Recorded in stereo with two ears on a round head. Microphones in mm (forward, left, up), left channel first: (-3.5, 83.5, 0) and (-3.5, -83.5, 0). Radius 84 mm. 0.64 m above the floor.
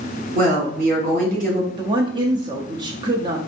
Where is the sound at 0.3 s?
45° right (ahead or behind), 2 m.